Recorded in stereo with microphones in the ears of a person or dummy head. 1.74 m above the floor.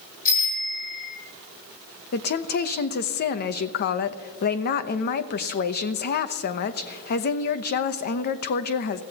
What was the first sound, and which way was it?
A bicycle bell, 45° left (ahead or behind).